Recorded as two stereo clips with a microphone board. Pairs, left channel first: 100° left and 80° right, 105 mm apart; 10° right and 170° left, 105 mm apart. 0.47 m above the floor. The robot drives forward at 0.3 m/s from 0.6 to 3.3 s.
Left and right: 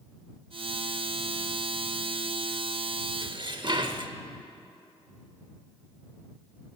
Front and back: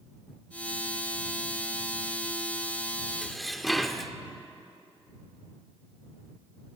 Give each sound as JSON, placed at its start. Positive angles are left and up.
{"t": 3.2, "sound": "dishes clattering", "azimuth_deg": -95, "distance_m": 0.7}